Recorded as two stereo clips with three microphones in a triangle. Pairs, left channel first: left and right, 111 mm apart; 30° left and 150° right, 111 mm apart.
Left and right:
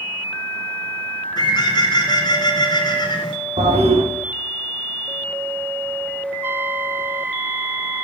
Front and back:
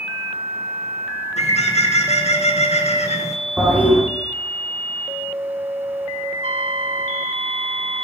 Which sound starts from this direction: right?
A toilet flushing, at 3.6 s.